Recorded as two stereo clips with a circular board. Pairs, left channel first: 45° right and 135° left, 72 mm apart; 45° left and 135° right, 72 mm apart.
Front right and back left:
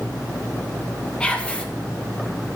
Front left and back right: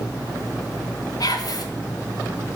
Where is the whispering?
30° left, 1.2 m.